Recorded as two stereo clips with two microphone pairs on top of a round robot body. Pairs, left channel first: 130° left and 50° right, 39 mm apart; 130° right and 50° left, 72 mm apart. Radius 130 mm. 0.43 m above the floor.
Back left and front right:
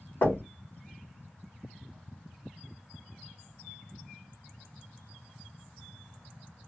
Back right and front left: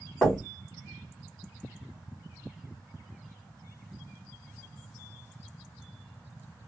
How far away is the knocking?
About 1.7 m.